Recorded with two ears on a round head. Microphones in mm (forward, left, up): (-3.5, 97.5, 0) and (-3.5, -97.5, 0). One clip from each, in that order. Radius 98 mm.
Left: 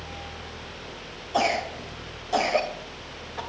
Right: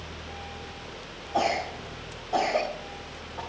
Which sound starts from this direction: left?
A cough, at 1.3 s.